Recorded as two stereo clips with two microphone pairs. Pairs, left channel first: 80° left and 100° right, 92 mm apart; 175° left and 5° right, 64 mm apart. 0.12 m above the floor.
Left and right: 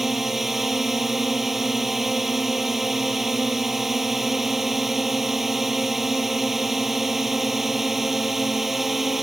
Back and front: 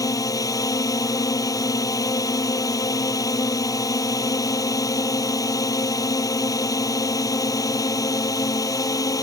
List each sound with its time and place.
0.0 s a drone: 175° left